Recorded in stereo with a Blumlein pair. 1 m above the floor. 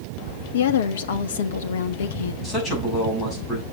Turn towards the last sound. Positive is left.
turn(degrees=15)